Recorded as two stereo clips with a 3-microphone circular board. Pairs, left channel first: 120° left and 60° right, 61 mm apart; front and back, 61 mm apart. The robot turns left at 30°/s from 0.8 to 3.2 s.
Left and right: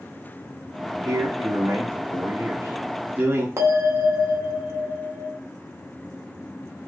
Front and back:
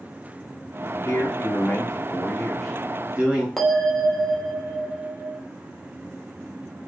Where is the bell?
85° right, 0.9 m.